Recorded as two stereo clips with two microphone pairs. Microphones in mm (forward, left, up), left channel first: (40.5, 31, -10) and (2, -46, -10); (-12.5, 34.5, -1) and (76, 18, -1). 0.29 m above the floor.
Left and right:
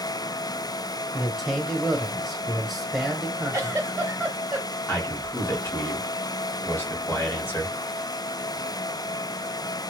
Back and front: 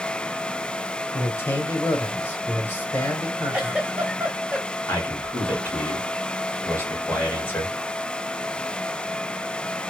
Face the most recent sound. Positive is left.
turn(degrees=115)